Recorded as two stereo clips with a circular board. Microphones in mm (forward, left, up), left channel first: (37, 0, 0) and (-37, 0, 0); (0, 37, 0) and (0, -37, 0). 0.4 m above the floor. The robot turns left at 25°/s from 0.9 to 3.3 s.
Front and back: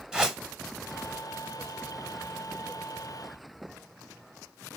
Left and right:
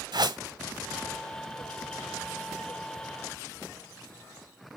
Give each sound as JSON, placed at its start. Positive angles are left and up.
{"t": 0.1, "sound": "a whoosh", "azimuth_deg": -100, "distance_m": 0.8}